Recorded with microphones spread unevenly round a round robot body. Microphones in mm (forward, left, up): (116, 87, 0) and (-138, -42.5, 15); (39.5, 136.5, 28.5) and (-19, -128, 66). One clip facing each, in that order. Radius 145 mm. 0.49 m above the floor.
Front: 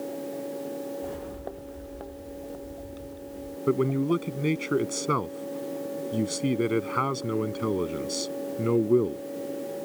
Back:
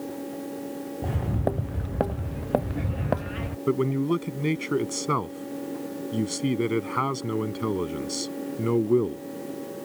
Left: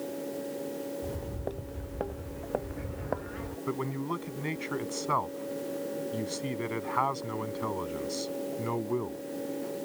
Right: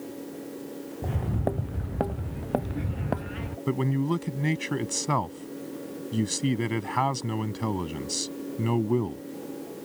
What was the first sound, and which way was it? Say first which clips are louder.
Footsteps: back 6 dB, right 6 dB; 125° right.